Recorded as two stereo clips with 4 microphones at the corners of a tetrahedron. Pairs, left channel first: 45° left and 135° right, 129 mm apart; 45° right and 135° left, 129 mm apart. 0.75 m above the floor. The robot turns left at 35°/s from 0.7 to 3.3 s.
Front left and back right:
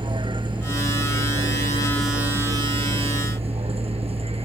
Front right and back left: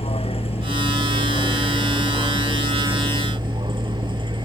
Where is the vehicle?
85° right; by 4.5 s 175° right.